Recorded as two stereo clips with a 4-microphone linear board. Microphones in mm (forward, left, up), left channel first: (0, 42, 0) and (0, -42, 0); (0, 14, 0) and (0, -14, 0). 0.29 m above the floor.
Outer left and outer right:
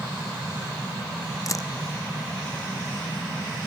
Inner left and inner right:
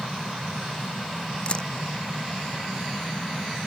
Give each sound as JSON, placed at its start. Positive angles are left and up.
{"t": 1.5, "sound": "a camera shutter", "side_deg": 40}